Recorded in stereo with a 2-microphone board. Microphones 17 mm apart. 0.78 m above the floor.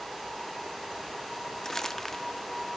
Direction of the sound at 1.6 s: 25° left (ahead or behind).